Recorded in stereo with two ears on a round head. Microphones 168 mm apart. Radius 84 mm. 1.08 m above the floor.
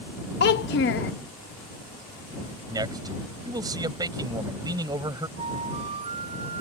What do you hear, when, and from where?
0.4 s a child speaking: 60° left (ahead or behind)
2.7 s a man speaking: 20° right (ahead or behind)
5.4 s a flute: 30° right (ahead or behind)